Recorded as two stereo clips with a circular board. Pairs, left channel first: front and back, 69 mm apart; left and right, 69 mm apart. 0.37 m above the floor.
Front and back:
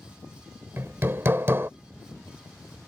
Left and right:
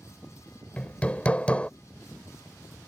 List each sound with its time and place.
0.8 s hammering: 150° left